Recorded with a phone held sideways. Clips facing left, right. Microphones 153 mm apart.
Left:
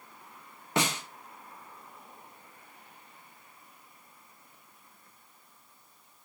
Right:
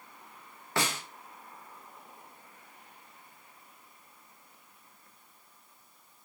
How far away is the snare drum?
About 1.1 m.